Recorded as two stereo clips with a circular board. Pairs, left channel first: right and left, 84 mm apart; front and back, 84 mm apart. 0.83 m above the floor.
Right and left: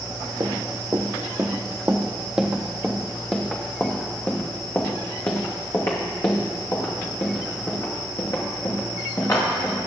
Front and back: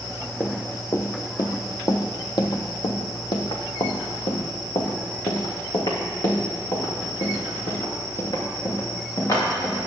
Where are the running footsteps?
60° left, 1.4 m; by 9.9 s 45° right, 4.5 m.